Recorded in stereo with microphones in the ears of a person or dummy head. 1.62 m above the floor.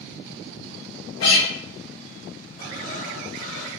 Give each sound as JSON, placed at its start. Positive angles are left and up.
{"t": 1.2, "sound": "a guitar", "side_deg": 85, "distance_m": 1.7}
{"t": 2.6, "sound": "breathing", "side_deg": 50, "distance_m": 2.5}